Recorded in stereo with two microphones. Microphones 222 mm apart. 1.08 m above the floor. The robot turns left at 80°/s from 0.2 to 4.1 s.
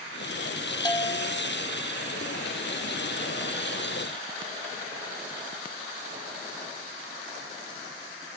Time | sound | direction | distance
0.8 | a bell | 160° left | 0.7 m